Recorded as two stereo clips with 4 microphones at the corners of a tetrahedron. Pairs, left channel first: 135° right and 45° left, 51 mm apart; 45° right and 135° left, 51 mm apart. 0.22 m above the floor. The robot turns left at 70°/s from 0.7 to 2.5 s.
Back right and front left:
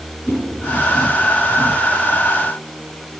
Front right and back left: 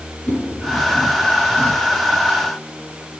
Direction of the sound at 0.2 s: 100° right.